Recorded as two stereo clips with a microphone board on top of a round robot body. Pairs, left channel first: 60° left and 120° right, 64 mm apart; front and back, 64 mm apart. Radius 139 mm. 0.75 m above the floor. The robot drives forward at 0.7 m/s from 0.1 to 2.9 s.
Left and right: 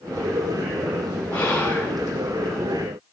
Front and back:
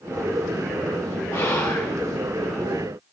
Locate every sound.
1.3 s whispering: straight ahead, 2.5 m